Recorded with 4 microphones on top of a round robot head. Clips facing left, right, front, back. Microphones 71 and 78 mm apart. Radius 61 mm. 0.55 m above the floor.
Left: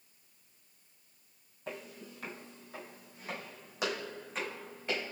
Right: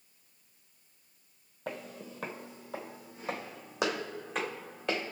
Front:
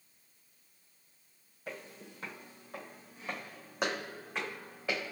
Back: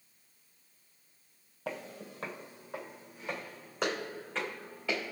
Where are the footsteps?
145° right, 0.8 m; by 5.1 s 75° right, 2.5 m.